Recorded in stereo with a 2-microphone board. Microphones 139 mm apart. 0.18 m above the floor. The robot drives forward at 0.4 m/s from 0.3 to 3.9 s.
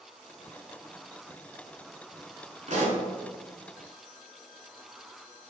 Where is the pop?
55° right (ahead or behind), 1.0 m.